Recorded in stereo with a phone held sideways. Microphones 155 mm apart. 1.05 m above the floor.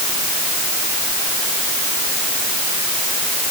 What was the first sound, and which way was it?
Only background noise.